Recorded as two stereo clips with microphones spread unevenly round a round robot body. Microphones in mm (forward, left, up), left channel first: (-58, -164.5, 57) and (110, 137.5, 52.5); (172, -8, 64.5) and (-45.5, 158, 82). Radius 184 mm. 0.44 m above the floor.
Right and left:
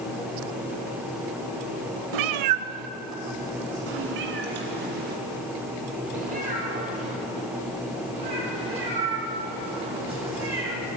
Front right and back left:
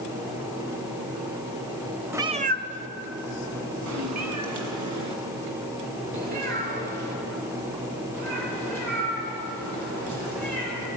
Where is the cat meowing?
60° left, 0.6 m; by 10.9 s 135° left, 6.5 m.